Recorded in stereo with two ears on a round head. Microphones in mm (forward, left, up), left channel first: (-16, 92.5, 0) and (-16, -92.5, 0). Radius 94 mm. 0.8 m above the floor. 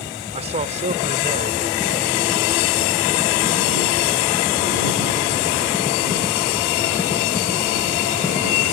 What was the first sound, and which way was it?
A man speaking, 35° right (ahead or behind).